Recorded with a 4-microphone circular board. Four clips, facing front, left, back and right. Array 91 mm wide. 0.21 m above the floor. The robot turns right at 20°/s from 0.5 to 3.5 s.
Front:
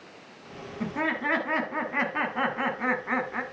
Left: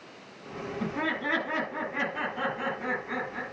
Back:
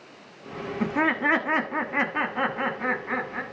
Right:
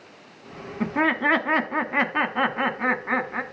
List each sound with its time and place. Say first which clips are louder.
0.8 s laughter: right 9 dB, back 5 dB; 125° right, 1.5 m; by 3.4 s 70° right, 1.5 m